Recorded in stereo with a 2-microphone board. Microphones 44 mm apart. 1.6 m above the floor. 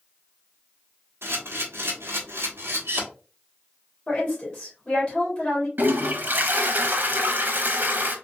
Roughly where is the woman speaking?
Centre.